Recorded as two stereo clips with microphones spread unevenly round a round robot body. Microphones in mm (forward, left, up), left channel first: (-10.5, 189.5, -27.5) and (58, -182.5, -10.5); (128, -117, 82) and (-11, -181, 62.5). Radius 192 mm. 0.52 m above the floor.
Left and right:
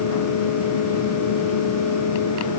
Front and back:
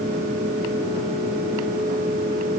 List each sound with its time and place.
Only background noise.